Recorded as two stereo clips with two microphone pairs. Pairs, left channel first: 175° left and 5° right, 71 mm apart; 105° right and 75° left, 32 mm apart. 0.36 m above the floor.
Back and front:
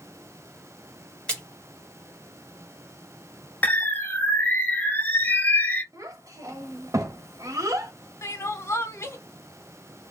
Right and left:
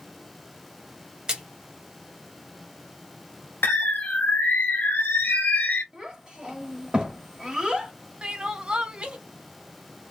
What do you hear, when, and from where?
1.3 s a splash: 120° left, 0.8 m
3.6 s a bird: 120° right, 0.5 m
5.9 s a child speaking: 20° left, 0.9 m
8.2 s crying: 125° left, 0.6 m